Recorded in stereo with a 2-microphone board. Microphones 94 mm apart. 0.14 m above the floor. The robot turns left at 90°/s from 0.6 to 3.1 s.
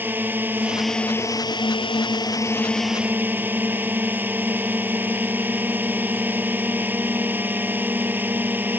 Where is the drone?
155° right; by 8.8 s 20° right.